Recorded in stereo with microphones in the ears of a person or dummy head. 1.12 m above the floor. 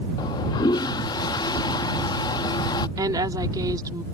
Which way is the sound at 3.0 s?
20° right (ahead or behind).